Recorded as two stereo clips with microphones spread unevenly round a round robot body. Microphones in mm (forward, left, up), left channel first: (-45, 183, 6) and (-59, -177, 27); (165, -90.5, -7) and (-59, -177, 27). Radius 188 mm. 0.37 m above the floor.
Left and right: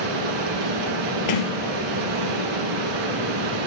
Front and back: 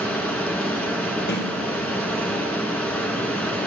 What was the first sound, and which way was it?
Running water, 65° right.